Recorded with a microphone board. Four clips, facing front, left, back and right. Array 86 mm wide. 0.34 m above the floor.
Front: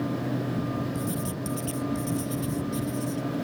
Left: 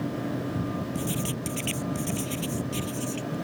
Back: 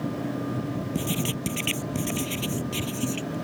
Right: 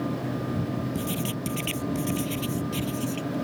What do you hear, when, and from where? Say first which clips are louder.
0.9 s writing: right 1 dB, back 2 dB; 175° right